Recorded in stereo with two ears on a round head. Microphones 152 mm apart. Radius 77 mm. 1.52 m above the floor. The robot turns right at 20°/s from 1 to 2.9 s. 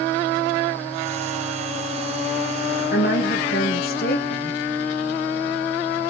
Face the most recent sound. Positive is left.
turn(degrees=60)  # may be behind; listen again after turning